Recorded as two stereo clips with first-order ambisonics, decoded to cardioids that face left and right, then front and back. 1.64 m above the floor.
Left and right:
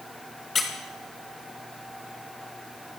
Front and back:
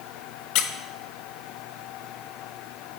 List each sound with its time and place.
0.6 s a squeak: 20° left, 1.4 m